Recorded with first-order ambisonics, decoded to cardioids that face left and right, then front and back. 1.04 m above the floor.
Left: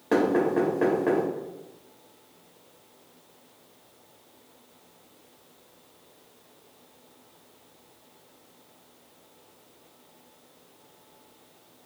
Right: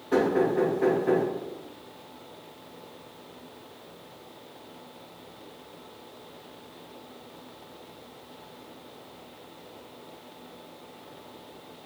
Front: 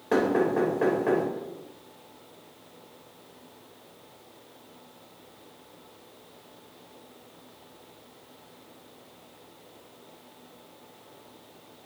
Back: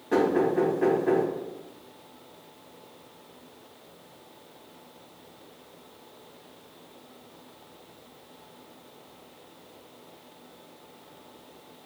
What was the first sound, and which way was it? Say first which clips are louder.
Knocking: left 1 dB, back 1 dB; 65° left.